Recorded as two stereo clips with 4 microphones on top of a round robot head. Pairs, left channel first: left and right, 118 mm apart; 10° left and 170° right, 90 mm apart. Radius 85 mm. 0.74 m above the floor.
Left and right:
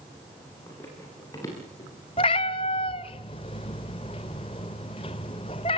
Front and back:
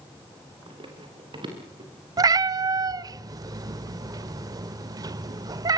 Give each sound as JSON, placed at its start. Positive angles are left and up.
{"t": 0.7, "sound": "running footsteps", "azimuth_deg": 165, "distance_m": 7.5}
{"t": 2.2, "sound": "a cat meowing", "azimuth_deg": 145, "distance_m": 0.7}